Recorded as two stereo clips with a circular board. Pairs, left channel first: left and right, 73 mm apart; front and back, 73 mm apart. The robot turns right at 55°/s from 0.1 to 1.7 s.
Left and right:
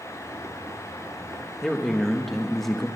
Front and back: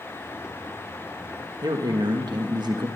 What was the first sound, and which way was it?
A man speaking, 170° left.